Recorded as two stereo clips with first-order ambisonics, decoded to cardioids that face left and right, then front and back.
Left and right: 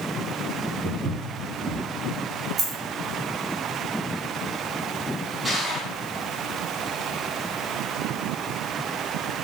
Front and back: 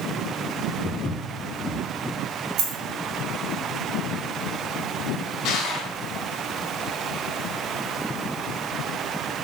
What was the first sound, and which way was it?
Footsteps, 65° right.